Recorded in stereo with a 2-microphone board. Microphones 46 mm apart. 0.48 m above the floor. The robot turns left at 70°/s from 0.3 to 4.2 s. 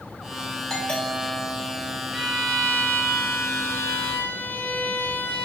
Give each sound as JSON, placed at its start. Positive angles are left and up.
{"t": 0.7, "sound": "a doorbell", "azimuth_deg": 160, "distance_m": 2.5}
{"t": 2.1, "sound": "a violin", "azimuth_deg": -175, "distance_m": 1.1}